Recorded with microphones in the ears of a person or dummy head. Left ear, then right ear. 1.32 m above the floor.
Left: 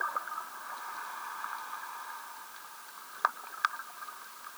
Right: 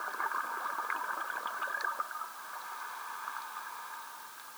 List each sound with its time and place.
Only background noise.